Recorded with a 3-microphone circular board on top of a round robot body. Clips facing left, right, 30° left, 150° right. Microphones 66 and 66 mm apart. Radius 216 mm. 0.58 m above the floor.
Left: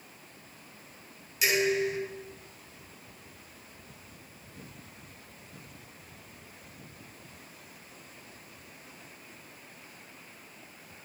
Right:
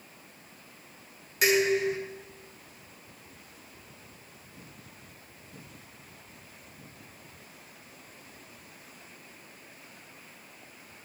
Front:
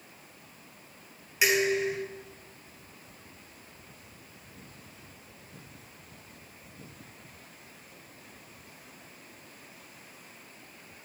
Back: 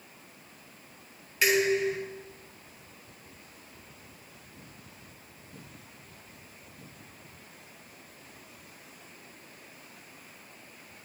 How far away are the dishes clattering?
About 6.5 m.